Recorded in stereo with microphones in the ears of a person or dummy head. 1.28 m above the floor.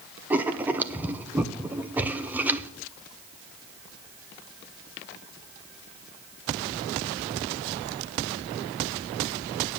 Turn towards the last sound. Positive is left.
turn(degrees=-10)  # may be behind; listen again after turning